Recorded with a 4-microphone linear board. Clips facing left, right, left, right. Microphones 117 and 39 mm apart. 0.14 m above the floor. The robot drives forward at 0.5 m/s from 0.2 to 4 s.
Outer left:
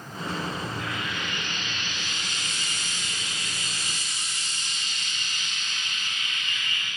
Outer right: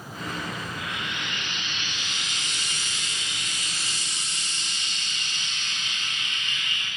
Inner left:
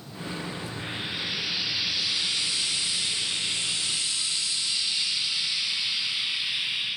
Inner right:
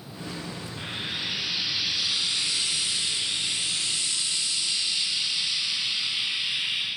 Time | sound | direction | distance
0.8 | frying | 75° right (ahead or behind) | 5.5 m